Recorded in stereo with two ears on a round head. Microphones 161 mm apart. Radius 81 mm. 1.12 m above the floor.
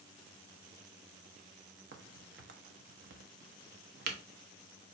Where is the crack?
65° right (ahead or behind), 0.9 m.